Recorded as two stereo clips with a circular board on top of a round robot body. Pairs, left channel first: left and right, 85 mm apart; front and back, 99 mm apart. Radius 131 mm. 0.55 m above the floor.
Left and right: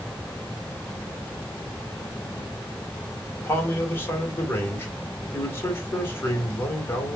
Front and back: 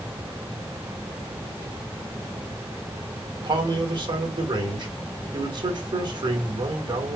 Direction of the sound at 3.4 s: 150° left.